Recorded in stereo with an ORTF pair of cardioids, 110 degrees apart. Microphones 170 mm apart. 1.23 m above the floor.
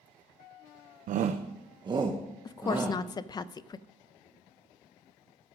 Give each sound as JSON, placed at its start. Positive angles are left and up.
{"t": 1.1, "sound": "a shout", "azimuth_deg": -60, "distance_m": 0.6}
{"t": 2.5, "sound": "a woman speaking", "azimuth_deg": 25, "distance_m": 0.6}